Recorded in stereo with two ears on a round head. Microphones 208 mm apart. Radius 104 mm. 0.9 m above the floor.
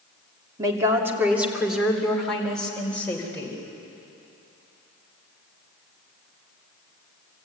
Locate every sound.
0.6 s a woman speaking: 15° right (ahead or behind), 2.5 m; by 3.6 s 10° left (ahead or behind), 4.5 m